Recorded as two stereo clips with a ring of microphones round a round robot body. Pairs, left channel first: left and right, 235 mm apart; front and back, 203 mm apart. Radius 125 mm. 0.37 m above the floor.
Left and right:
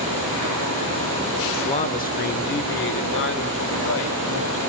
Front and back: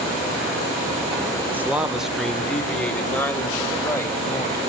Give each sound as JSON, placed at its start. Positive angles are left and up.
{"t": 1.5, "sound": "a man speaking", "azimuth_deg": 115, "distance_m": 1.3}